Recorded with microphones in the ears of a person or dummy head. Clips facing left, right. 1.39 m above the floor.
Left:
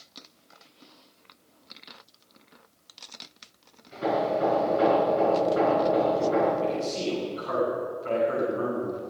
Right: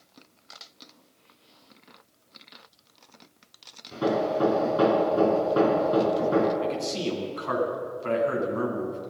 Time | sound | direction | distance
3.9 | hammering | 70° right (ahead or behind) | 6.5 m
6.6 | a man speaking | 75° right (ahead or behind) | 9.5 m